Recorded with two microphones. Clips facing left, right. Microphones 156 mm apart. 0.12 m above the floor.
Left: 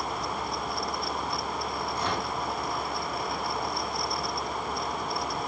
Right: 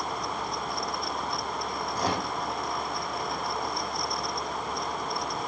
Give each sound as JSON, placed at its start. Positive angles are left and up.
{"t": 1.9, "sound": "a microwave", "side_deg": -40, "distance_m": 3.5}